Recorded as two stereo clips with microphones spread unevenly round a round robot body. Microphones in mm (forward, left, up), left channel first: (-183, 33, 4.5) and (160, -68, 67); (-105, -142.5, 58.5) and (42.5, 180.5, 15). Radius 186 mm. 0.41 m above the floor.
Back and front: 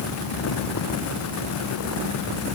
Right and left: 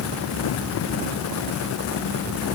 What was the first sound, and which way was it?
Only background noise.